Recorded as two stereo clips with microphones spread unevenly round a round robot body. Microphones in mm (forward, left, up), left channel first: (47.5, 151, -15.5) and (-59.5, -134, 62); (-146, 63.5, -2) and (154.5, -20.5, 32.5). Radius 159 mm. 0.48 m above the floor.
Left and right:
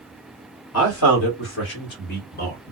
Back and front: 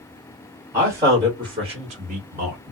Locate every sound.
0.7 s a man speaking: 70° left, 1.8 m; by 2.7 s 30° left, 1.3 m